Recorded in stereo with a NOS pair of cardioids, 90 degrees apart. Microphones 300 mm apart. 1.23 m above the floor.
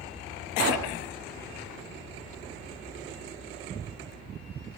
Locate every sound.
0.6 s a pop: 55° right, 1.8 m